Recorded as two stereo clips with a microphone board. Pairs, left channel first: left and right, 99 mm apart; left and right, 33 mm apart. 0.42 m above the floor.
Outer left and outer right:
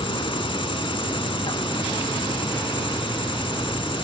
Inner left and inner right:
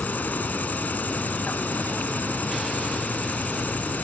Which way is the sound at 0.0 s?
60° left (ahead or behind).